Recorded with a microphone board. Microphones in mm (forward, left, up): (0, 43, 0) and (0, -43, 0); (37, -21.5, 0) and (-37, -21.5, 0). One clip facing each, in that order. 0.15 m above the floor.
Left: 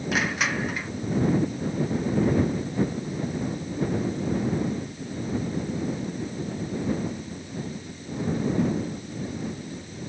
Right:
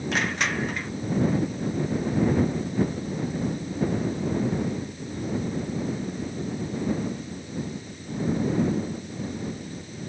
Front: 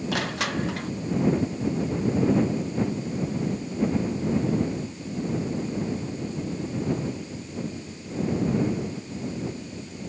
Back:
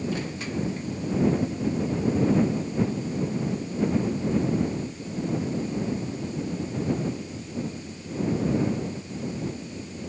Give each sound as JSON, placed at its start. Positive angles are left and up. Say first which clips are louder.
{"t": 0.1, "sound": "crushing", "louder": "left 1 dB, front 3 dB", "azimuth_deg": 5}